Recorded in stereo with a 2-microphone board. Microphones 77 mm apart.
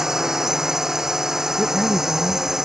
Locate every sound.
0.0 s a drone: 5° right (ahead or behind)
1.6 s a man speaking: centre (ahead or behind)